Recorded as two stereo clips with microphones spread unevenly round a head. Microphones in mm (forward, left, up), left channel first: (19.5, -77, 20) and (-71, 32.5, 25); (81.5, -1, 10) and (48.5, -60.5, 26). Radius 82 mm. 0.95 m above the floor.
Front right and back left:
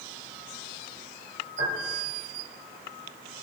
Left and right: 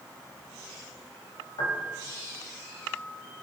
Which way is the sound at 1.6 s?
80° left.